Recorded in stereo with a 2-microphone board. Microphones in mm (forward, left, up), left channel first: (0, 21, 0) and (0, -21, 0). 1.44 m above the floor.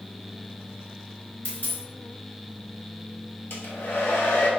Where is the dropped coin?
55° left (ahead or behind), 2.5 m.